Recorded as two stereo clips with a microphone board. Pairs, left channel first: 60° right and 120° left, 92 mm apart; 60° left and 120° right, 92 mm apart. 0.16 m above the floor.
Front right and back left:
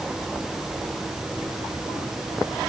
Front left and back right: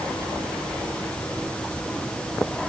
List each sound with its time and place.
Only background noise.